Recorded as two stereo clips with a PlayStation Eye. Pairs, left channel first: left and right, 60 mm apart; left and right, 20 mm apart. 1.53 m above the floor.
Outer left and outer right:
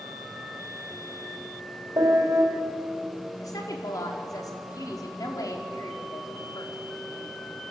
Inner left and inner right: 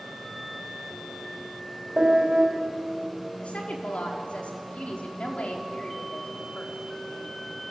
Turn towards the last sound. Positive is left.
turn(degrees=85)